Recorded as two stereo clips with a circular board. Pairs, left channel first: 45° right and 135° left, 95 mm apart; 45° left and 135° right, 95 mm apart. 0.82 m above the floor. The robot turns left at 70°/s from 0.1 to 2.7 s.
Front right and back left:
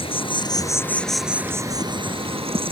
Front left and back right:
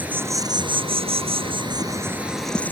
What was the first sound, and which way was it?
An insect, 60° right.